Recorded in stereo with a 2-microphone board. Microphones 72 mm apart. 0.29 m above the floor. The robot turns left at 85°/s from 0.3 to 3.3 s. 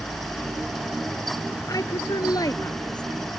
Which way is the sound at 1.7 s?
50° left (ahead or behind).